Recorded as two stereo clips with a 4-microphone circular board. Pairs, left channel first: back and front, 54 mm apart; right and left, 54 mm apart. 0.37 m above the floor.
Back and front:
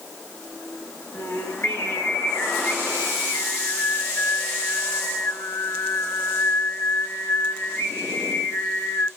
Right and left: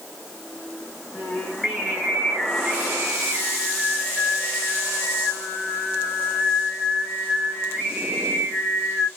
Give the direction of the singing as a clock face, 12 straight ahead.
6 o'clock.